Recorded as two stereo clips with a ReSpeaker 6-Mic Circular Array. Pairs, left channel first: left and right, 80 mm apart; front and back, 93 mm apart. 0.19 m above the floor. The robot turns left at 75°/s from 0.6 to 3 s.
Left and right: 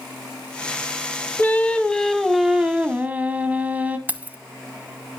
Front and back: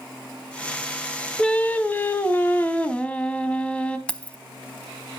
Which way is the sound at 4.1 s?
60° right.